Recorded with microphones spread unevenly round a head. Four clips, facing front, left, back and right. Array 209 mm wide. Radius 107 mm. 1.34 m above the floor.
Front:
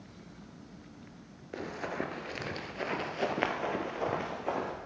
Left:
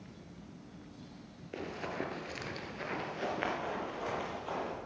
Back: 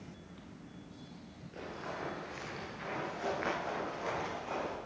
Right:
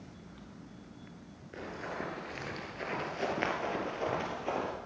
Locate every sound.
1.5 s running footsteps: 30° left, 1.7 m; by 4.7 s 40° right, 2.5 m